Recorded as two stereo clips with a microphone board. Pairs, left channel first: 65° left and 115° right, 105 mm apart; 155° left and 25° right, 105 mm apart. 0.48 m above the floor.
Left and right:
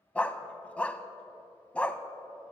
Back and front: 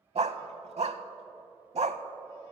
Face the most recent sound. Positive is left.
turn(degrees=-10)